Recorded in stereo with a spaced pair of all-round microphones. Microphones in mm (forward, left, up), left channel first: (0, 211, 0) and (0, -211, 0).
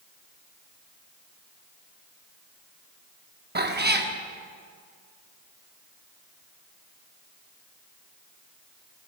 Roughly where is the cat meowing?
Right.